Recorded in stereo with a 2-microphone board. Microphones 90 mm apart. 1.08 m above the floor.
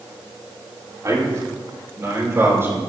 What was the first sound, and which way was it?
A man speaking, 35° right (ahead or behind).